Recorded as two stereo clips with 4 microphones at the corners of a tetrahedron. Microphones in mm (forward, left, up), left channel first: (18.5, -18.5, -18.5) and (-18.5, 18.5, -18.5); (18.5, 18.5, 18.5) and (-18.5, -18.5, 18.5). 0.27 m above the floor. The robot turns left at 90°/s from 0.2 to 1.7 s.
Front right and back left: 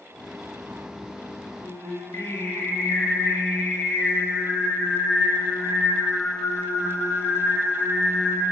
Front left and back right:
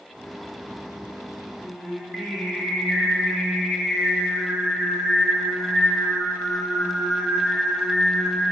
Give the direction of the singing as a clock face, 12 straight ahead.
1 o'clock.